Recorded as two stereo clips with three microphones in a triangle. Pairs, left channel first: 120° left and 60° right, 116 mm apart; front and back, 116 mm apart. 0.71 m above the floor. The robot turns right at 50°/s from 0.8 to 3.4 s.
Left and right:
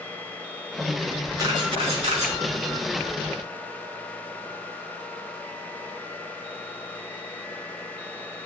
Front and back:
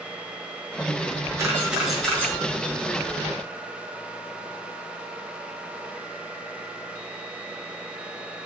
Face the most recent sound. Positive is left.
turn(degrees=-15)